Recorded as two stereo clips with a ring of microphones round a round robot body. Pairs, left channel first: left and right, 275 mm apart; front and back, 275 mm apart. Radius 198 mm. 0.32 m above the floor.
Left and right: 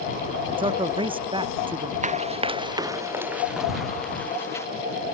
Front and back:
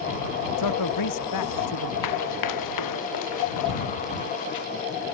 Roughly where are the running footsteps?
Ahead right.